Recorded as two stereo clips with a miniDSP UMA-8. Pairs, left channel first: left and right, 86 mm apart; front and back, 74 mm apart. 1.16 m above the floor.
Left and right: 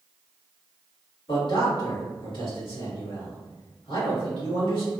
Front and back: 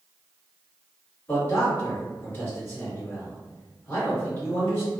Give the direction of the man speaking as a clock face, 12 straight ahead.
10 o'clock.